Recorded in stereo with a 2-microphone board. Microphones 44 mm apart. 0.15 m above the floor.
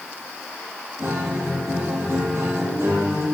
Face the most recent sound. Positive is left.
turn(degrees=-60)  # may be behind; listen again after turning